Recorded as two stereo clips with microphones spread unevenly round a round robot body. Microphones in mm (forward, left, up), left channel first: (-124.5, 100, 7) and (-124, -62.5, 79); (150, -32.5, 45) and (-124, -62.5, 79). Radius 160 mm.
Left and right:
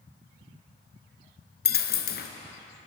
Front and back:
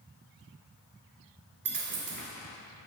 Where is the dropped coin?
130° left, 0.6 m.